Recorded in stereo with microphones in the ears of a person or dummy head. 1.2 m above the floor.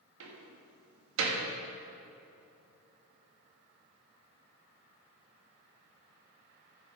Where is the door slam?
80° right, 1.5 m.